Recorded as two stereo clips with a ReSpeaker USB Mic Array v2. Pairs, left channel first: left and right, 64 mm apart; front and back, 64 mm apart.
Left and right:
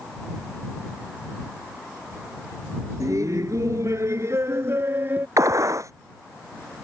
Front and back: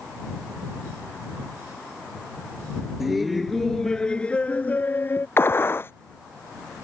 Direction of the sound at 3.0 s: 95° right.